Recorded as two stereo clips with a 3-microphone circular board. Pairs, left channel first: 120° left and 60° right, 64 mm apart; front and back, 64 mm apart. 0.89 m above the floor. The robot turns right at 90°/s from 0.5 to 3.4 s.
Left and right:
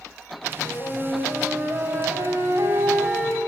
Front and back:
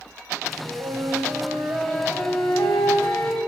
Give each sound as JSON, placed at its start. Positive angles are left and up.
{"t": 0.7, "sound": "a flute", "azimuth_deg": 150, "distance_m": 3.0}